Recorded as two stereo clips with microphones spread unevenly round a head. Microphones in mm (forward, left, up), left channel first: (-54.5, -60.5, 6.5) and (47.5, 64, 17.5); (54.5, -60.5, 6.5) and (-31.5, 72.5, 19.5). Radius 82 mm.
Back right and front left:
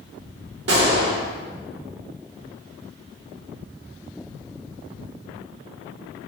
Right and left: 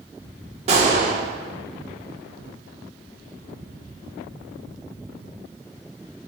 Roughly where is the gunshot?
Left.